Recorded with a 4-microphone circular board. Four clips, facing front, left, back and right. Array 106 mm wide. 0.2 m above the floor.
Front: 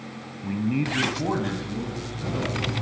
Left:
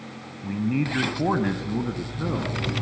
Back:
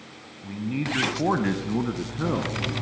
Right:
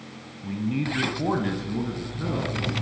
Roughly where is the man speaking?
Ahead left.